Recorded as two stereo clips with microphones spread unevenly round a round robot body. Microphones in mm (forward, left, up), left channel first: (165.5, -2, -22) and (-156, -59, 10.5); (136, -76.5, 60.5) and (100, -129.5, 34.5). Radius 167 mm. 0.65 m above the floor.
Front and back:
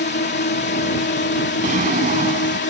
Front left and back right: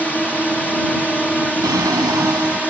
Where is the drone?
25° right.